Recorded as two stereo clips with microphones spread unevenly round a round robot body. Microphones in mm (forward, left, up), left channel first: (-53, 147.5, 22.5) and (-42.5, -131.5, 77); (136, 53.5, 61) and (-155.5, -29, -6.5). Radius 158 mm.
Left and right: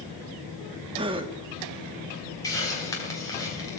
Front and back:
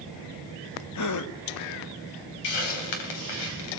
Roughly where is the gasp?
Ahead.